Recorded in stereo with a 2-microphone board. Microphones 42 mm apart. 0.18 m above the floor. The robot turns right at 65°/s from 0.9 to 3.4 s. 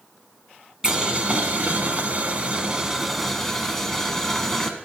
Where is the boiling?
150° right, 0.6 m; by 4.7 s 15° left, 0.6 m.